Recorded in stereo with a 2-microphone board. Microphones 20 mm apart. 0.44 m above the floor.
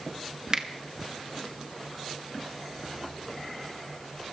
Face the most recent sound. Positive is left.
turn(degrees=-30)  # may be behind; listen again after turning